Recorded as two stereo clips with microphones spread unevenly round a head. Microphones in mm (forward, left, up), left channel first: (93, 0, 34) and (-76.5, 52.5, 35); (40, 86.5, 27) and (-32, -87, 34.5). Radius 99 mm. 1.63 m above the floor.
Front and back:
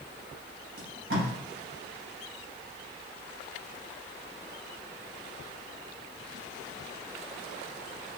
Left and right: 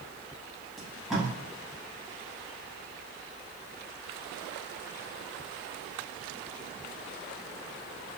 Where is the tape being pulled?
160° left, 1.2 m.